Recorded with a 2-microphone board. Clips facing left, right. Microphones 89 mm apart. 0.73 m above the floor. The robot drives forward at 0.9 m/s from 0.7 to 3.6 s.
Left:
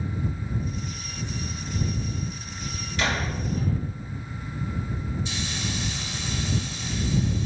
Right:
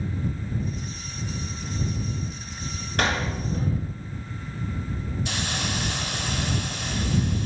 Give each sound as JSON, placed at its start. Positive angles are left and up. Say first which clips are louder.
{"t": 3.0, "sound": "a door slam", "louder": "right 2 dB", "side_deg": -55, "distance_m": 8.0}
{"t": 5.2, "sound": "a hiss", "louder": "right 2 dB", "side_deg": -60, "distance_m": 0.7}